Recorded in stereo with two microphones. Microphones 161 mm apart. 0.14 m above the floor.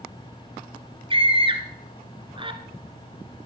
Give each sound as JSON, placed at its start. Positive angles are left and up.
{"t": 1.1, "sound": "a scream", "side_deg": -30, "distance_m": 1.8}